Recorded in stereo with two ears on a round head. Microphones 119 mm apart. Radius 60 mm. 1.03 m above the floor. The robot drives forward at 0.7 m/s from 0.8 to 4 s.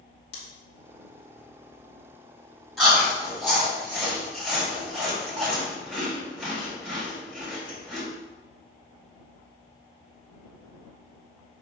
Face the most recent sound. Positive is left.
turn(degrees=0)  # may be behind; listen again after turning